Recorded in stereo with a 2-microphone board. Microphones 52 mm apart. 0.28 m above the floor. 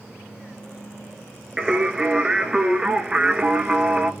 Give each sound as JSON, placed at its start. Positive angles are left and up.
{"t": 1.6, "sound": "singing", "side_deg": -15, "distance_m": 0.7}